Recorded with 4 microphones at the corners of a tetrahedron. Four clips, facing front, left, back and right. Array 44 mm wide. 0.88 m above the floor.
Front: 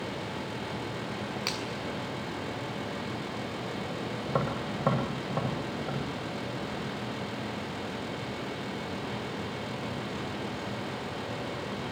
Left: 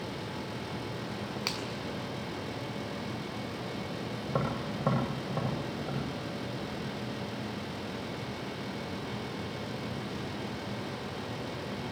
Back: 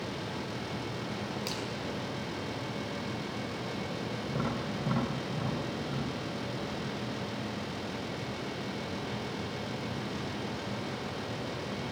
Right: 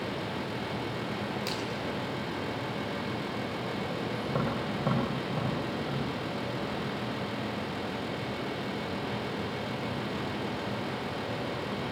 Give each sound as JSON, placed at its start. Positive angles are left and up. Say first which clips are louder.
{"t": 1.5, "sound": "a finger snap", "louder": "right 1 dB, front 3 dB", "azimuth_deg": 45, "distance_m": 6.5}
{"t": 4.3, "sound": "tapping", "louder": "even, front 4 dB", "azimuth_deg": 20, "distance_m": 10.0}